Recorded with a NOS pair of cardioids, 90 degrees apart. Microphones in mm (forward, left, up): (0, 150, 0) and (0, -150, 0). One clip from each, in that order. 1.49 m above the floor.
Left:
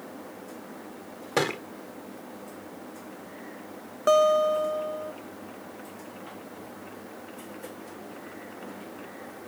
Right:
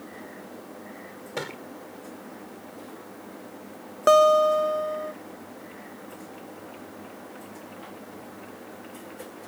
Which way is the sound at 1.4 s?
60° left.